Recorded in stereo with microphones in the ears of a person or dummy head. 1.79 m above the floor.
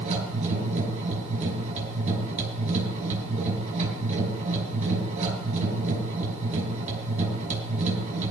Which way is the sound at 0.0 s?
40° right (ahead or behind).